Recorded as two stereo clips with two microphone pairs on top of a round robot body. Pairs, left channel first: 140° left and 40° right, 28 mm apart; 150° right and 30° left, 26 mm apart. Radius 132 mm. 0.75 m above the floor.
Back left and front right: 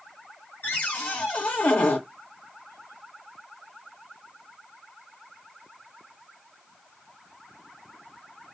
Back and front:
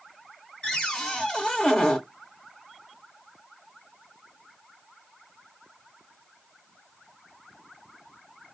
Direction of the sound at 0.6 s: 145° left.